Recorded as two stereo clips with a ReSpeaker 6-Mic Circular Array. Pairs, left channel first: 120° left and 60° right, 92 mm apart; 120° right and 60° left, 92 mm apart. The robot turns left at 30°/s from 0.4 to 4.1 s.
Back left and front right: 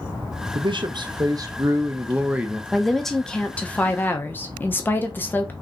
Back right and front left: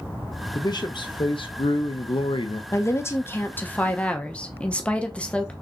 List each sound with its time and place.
0.6 s a man speaking: 80° right, 0.6 m; by 2.6 s 140° right, 0.6 m
2.7 s a woman speaking: 145° right, 0.8 m; by 5.5 s 170° left, 0.8 m